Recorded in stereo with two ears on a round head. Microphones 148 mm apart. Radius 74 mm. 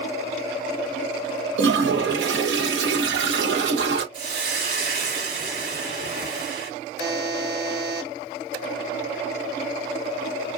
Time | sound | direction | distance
1.6 | a toilet flushing | 75° right (ahead or behind) | 1.1 m
4.1 | a hiss | 60° right (ahead or behind) | 2.0 m
7.0 | a buzzer | 25° right (ahead or behind) | 1.4 m